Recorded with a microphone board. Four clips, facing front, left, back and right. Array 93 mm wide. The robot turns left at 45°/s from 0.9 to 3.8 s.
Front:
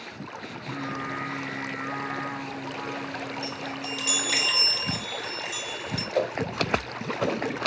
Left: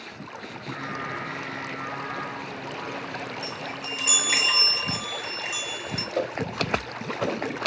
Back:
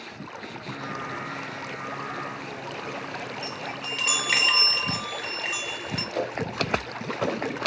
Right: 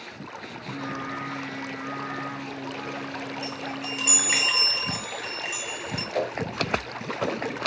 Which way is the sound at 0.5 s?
60° left.